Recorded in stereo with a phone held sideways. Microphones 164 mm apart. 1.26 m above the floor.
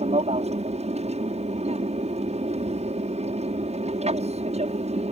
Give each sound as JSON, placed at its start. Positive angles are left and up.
{"t": 0.0, "sound": "an aircraft", "side_deg": -45}